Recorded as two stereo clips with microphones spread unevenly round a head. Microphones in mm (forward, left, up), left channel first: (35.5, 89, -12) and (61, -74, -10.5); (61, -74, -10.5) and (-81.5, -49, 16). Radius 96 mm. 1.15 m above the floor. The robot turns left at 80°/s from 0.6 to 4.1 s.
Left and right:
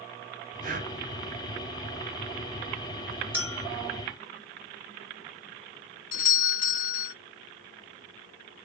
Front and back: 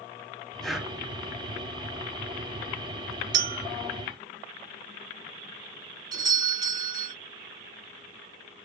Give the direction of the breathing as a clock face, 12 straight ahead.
3 o'clock.